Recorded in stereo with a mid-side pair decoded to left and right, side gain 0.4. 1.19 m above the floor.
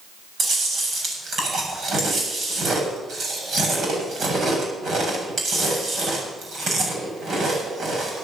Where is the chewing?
60° right, 7.5 m.